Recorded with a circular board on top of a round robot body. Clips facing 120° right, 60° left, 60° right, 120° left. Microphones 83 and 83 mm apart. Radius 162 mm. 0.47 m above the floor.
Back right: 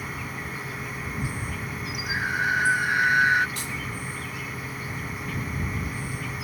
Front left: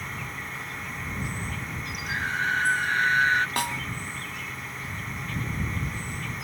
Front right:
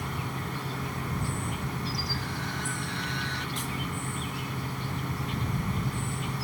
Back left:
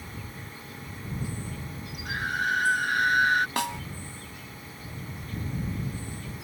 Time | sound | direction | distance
0.0 | an insect | 30° right | ?
2.0 | a scream | 160° left | ?
3.6 | a snare drum | 95° left | ?